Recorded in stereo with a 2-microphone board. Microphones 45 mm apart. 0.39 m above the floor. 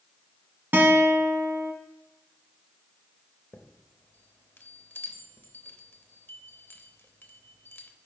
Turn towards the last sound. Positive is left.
turn(degrees=50)  # may be behind; listen again after turning